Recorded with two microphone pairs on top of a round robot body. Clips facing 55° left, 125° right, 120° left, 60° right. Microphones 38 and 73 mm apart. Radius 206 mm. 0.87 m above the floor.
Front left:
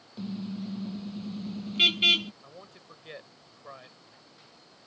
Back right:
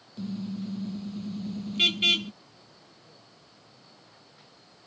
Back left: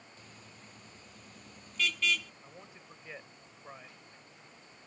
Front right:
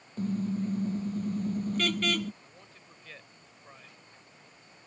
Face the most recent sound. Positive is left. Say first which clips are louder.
# front left 6 dB, back left 2 dB
turn(degrees=50)